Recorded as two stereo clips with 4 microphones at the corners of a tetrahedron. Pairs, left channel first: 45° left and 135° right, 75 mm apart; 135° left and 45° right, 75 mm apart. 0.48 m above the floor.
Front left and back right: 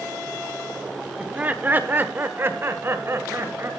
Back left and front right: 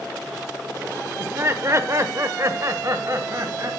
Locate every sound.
1.2 s laughter: 70° right, 0.9 m; by 3.7 s 85° right, 2 m